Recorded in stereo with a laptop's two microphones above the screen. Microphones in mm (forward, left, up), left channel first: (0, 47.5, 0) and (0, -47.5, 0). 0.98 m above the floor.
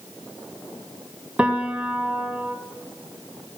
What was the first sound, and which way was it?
A piano, 15° right (ahead or behind).